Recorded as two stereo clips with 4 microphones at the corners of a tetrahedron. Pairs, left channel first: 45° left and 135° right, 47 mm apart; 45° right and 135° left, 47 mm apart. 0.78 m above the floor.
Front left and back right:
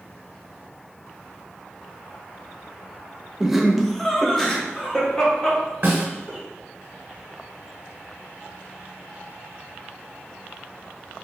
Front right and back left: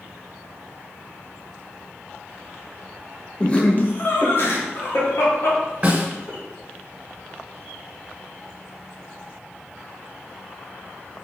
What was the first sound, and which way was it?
Laughter, 65° right.